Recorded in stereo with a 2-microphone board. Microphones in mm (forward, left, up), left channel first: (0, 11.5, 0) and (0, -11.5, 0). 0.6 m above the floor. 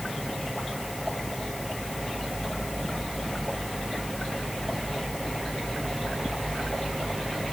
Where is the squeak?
No squeak in this recording.